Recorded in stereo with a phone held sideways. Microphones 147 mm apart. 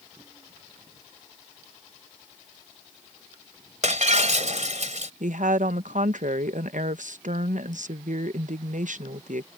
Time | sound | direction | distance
3.8 | breaking glass | 60° right (ahead or behind) | ?
5.2 | a woman speaking | 65° right (ahead or behind) | ?